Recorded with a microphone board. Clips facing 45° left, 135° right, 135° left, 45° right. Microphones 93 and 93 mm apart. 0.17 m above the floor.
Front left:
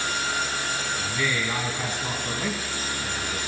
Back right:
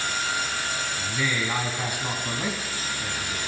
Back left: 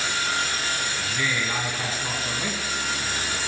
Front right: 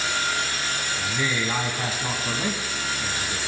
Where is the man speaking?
80° right, 1.1 m.